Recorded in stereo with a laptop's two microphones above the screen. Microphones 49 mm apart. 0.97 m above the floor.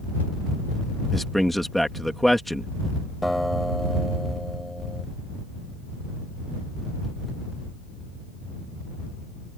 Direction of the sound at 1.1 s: Centre (ahead or behind).